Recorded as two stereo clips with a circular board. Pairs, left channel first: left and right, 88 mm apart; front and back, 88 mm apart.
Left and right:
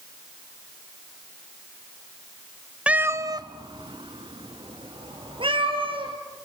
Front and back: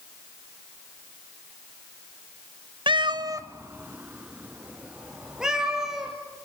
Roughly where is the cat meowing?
Behind.